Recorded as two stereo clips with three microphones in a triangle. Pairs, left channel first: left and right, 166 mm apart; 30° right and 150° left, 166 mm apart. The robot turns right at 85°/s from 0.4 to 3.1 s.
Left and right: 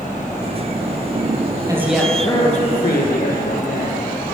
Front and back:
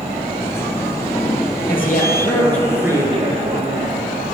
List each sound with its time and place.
1.7 s a woman speaking: 25° right, 2.5 m; by 4.0 s 95° left, 2.5 m